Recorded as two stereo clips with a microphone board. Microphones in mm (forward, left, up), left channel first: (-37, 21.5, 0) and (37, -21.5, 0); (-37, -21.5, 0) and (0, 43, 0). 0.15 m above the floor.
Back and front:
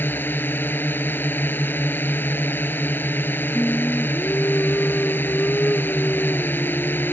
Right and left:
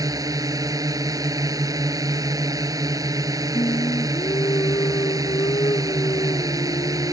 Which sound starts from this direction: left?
A drone, at 0.0 s.